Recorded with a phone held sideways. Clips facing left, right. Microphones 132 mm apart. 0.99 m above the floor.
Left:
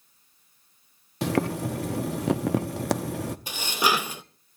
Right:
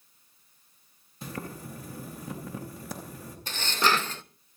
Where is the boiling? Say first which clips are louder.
Left 13 dB; 80° left, 0.8 m.